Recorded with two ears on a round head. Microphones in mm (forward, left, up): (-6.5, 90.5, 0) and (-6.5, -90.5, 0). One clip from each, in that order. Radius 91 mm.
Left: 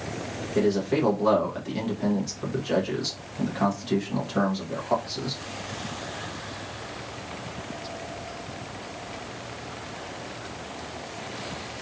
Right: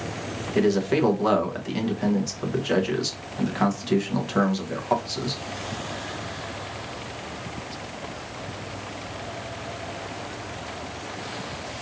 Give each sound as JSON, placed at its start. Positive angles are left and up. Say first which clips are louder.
{"t": 0.6, "sound": "a man speaking", "louder": "right 2 dB", "side_deg": -30, "distance_m": 1.1}